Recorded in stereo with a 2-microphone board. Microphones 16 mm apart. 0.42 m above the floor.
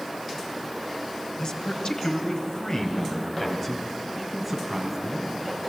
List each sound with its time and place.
1.4 s a man speaking: 70° left (ahead or behind), 3 m; by 5.5 s 5° right (ahead or behind), 4.5 m